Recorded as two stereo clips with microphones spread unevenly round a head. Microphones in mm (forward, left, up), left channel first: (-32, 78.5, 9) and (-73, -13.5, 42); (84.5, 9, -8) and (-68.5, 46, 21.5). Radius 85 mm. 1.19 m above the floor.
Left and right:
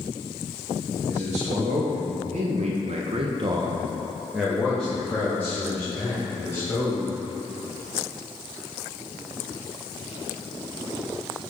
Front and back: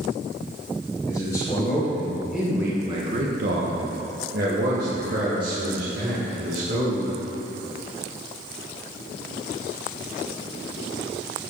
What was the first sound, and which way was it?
A man speaking, 80° right.